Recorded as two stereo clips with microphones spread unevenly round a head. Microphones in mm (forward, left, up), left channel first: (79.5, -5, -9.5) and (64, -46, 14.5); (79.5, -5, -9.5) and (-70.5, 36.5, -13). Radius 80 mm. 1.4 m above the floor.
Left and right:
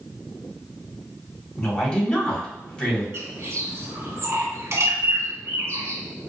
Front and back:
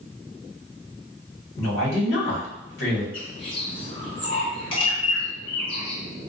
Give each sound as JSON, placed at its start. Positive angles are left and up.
{"t": 1.6, "sound": "a woman speaking", "azimuth_deg": 5, "distance_m": 1.9}
{"t": 3.1, "sound": "a bird", "azimuth_deg": -75, "distance_m": 1.1}